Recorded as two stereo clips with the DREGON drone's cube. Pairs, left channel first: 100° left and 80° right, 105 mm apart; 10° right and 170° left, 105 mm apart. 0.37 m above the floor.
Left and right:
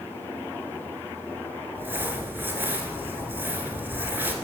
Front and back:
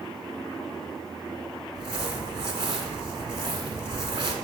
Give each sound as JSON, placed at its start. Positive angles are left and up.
{"t": 1.8, "sound": "crumpling", "azimuth_deg": -150, "distance_m": 1.1}